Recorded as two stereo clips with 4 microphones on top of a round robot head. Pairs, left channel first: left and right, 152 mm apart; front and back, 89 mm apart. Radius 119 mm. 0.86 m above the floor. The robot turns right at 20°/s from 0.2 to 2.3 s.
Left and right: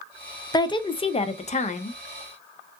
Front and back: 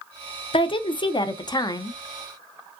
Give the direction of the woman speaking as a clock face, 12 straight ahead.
11 o'clock.